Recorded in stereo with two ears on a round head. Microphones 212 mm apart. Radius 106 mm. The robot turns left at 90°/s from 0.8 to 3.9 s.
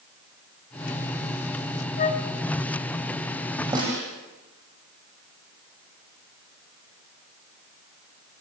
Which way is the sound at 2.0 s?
35° left (ahead or behind).